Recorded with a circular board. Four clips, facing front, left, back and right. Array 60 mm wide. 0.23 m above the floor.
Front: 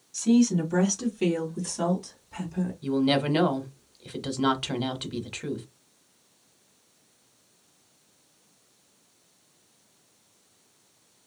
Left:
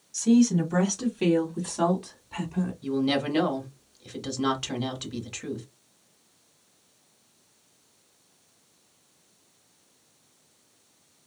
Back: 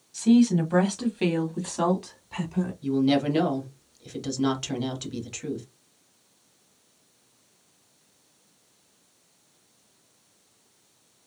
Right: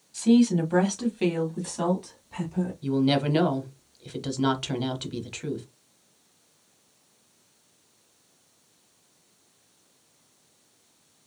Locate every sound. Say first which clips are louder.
0.1 s a woman speaking: right 1 dB, back 2 dB; 115° right, 1.3 m; by 2.7 s 160° left, 1.8 m
2.8 s a woman speaking: right 3 dB, back 1 dB; 25° right, 0.9 m